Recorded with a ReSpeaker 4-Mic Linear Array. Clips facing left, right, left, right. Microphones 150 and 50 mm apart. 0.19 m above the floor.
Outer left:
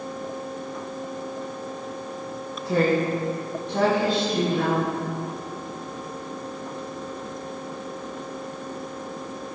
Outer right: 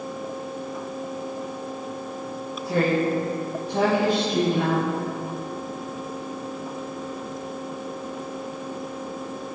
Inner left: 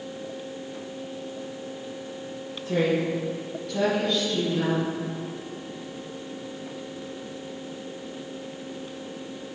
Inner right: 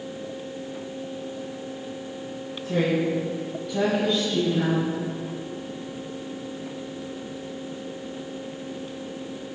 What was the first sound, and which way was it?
A woman speaking, 15° left (ahead or behind).